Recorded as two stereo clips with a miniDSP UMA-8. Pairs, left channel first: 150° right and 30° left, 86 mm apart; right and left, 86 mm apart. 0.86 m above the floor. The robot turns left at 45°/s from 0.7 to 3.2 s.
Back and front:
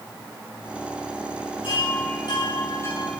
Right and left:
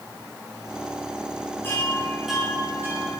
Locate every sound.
1.6 s a chime: 155° right, 7.5 m; by 3.1 s 140° left, 7.5 m